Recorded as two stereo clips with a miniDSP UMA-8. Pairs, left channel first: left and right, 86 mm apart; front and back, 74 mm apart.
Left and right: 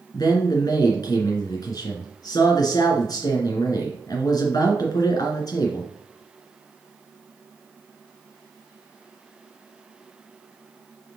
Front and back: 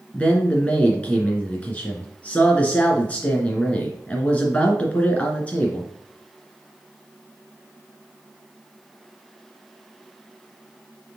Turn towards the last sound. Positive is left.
turn(degrees=65)